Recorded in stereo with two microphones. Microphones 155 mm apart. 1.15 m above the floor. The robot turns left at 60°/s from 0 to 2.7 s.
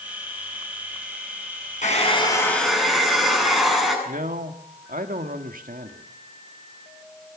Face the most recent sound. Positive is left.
turn(degrees=-65)  # may be behind; listen again after turning